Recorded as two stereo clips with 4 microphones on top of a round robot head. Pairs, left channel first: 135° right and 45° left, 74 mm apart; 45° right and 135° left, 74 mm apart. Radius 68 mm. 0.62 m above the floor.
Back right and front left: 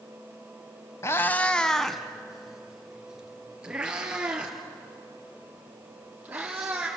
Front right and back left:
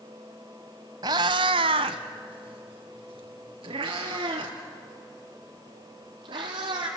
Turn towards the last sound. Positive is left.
turn(degrees=120)